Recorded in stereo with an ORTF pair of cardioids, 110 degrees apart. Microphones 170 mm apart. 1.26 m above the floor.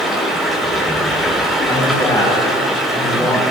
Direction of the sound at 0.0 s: Straight ahead.